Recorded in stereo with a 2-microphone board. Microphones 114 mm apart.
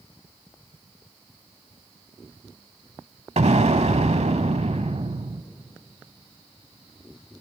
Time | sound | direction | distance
3.4 | an explosion | 80° right | 0.8 m